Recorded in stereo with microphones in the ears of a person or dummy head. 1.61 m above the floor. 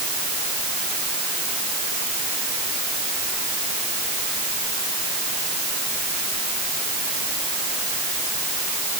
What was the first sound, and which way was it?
Only background noise.